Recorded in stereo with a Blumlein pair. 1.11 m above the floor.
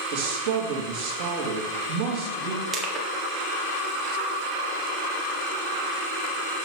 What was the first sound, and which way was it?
A man speaking, 50° right.